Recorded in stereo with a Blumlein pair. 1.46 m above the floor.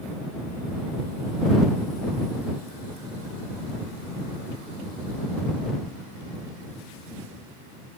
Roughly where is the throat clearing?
I don't hear throat clearing.